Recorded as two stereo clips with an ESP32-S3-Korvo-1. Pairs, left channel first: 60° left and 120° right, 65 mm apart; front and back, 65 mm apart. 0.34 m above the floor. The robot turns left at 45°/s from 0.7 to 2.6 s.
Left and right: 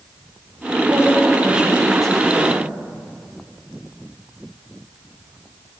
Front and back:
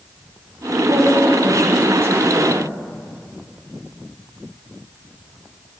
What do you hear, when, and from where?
0.9 s a woman speaking: 165° right, 1.7 m; by 2.7 s 115° left, 1.7 m